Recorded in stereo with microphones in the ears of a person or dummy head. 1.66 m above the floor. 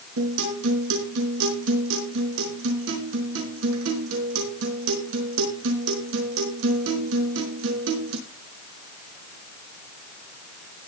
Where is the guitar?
65° right (ahead or behind), 4.5 m.